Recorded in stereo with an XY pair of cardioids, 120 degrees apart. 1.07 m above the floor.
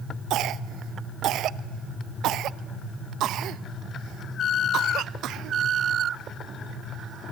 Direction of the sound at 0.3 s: 70° right.